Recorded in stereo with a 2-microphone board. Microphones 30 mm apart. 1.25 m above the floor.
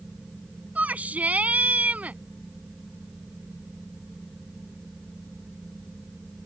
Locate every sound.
0.8 s a shout: 65° right (ahead or behind)